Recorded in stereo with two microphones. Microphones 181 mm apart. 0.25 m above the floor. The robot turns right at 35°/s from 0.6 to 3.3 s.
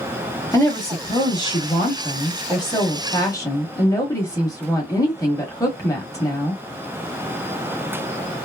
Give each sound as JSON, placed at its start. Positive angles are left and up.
{"t": 0.5, "sound": "a woman speaking", "side_deg": 15, "distance_m": 1.0}